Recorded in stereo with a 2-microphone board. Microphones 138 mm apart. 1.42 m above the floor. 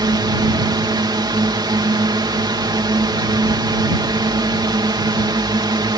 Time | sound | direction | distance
0.0 | a drone | 35° right (ahead or behind) | ?